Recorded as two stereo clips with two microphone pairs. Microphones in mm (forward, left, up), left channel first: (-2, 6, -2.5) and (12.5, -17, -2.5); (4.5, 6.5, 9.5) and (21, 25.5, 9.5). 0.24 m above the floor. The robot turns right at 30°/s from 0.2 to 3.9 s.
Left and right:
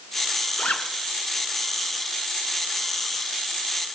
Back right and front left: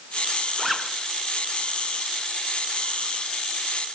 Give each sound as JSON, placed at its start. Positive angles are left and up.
{"t": 0.6, "sound": "a zipper", "azimuth_deg": 140, "distance_m": 2.5}